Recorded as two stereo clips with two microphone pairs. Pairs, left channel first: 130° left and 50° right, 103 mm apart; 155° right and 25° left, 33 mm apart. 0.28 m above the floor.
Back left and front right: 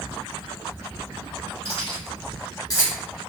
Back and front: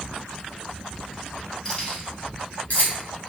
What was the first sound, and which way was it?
Keys jangling, 140° left.